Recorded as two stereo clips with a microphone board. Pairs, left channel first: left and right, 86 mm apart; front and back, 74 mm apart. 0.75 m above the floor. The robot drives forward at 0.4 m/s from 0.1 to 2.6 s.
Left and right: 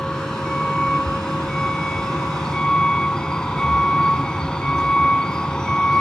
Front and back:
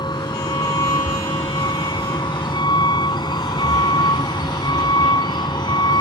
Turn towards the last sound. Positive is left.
turn(degrees=10)